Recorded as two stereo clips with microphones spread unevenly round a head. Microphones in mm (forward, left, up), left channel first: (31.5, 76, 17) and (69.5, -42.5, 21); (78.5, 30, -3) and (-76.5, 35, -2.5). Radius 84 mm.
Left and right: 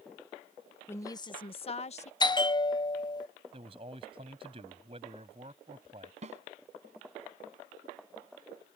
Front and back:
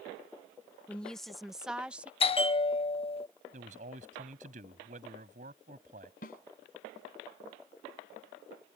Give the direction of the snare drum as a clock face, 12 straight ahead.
1 o'clock.